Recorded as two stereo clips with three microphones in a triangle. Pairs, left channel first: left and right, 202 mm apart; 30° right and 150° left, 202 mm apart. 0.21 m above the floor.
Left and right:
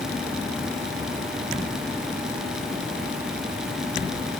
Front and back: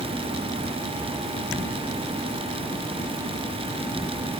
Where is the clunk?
I don't hear a clunk.